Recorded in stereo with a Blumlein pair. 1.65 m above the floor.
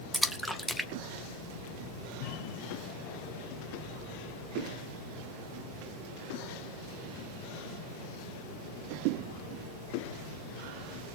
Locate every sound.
0.1 s a splash: straight ahead, 1.0 m